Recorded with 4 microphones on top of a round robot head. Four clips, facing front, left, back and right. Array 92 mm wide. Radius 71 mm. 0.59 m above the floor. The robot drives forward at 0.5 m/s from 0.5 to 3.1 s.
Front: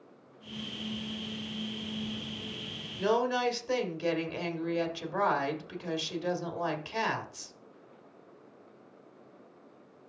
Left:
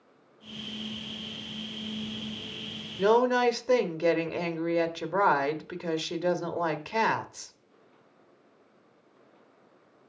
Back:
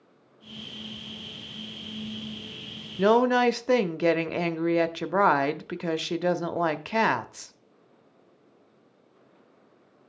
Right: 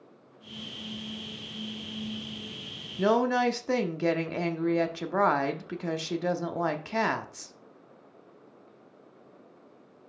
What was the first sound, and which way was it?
A woman speaking, straight behind.